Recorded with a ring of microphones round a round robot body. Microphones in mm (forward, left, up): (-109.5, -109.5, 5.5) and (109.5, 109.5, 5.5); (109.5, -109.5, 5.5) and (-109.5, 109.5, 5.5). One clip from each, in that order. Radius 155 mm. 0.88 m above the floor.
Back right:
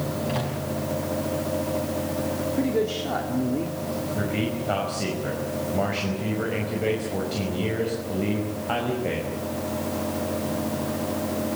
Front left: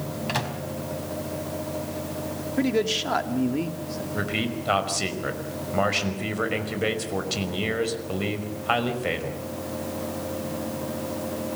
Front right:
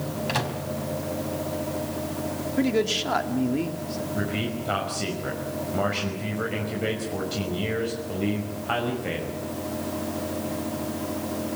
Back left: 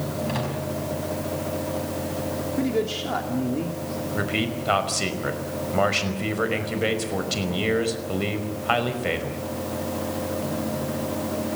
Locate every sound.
0.3 s a microwave: 10° left, 4.5 m
2.6 s a man speaking: 15° left, 2.5 m
4.1 s a man speaking: 75° left, 5 m